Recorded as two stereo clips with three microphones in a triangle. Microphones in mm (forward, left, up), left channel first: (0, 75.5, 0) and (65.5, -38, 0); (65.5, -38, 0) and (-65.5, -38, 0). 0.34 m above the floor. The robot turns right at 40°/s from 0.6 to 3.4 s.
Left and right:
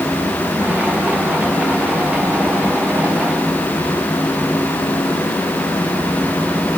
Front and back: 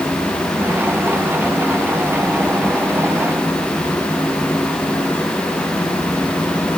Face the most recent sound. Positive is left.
No sound to turn to.